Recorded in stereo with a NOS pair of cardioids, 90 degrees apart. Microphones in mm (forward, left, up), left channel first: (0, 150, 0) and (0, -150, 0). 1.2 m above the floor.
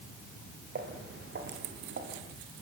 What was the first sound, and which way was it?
Footsteps, 35° right.